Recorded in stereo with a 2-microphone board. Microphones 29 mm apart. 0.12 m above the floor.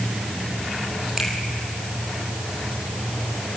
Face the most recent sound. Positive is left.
turn(degrees=-10)  # may be behind; listen again after turning